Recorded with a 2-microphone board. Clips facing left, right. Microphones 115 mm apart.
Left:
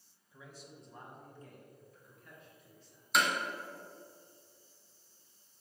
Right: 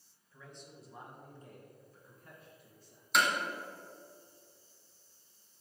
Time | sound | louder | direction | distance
0.3 | a man speaking | even | 15° left (ahead or behind) | 1.4 m
3.1 | hammering | right 1 dB | centre (ahead or behind) | 1.7 m